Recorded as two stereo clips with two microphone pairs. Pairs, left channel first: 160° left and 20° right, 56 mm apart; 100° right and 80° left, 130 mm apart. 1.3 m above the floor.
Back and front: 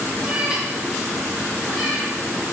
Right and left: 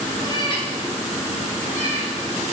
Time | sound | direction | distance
0.2 | a cat meowing | 70° right | 0.6 m